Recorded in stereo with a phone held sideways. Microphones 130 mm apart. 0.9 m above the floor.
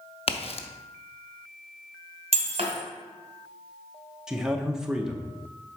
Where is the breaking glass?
50° right (ahead or behind), 1.8 m.